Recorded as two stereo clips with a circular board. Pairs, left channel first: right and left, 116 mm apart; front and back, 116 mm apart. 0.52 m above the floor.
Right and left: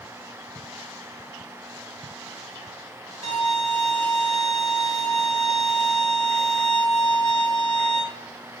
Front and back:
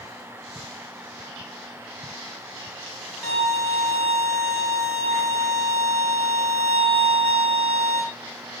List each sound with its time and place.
3.2 s a violin: 75° left, 2.5 m